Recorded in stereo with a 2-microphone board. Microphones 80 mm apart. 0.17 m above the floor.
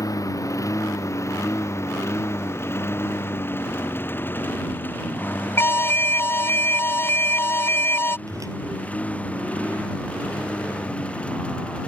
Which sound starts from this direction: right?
A whoosh, at 8.3 s.